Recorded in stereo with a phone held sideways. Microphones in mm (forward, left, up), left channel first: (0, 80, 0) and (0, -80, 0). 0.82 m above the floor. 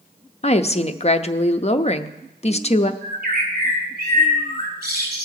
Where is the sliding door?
No sliding door in this recording.